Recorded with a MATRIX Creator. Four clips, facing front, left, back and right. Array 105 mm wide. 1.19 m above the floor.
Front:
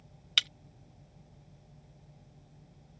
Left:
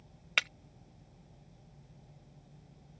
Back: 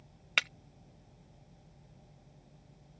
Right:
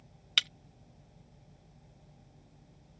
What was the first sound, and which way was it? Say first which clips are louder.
Breaking glass: left 3 dB, back 4 dB; 140° left.